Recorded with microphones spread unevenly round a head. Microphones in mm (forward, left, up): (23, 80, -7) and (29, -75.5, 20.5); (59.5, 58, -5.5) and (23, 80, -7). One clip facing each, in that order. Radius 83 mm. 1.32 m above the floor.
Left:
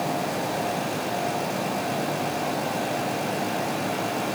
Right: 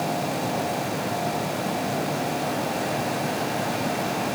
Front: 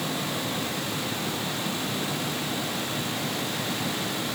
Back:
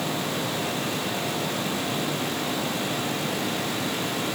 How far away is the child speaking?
No child speaking in this recording.